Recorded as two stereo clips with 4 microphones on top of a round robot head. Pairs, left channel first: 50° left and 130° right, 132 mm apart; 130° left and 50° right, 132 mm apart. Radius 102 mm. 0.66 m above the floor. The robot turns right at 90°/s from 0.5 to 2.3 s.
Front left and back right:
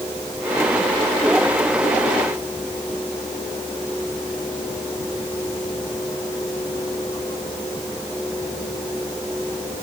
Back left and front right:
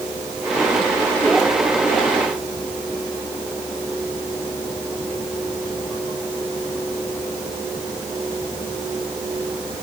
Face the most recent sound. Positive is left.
No sound to turn to.